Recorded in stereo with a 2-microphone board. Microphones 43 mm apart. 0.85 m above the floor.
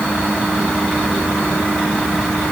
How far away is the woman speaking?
No woman speaking in this recording.